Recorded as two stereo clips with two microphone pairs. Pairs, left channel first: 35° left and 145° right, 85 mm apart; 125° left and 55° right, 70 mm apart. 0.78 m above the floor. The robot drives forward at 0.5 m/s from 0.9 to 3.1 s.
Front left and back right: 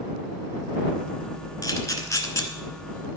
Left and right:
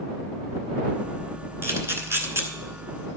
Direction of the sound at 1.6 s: 10° right.